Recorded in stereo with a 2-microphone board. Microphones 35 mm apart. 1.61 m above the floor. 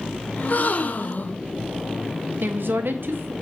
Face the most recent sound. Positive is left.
turn(degrees=-75)  # may be behind; listen again after turning